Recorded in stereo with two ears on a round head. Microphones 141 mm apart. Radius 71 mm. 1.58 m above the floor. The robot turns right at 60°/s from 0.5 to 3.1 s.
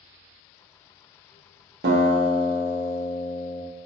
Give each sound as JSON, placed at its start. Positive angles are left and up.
{"t": 1.8, "sound": "a guitar", "azimuth_deg": -65, "distance_m": 0.7}